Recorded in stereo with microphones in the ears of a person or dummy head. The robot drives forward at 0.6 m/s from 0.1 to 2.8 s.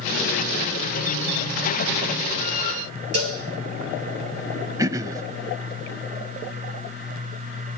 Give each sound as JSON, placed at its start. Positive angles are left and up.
{"t": 3.1, "sound": "a cowbell", "side_deg": -75, "distance_m": 4.5}
{"t": 4.8, "sound": "throat clearing", "side_deg": -20, "distance_m": 0.7}